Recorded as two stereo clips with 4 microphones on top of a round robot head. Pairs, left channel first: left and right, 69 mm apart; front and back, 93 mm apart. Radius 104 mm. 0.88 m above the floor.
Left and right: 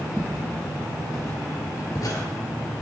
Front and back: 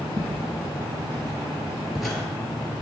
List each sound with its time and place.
0.2 s footsteps: 165° right, 1.5 m; by 2.2 s 80° left, 1.1 m